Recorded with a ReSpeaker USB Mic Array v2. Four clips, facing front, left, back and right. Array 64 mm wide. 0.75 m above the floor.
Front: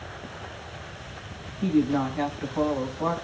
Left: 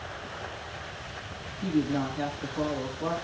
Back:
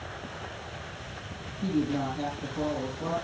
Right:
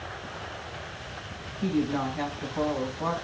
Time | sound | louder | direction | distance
1.6 | a woman speaking | even, front 5 dB | 30° right | 5 m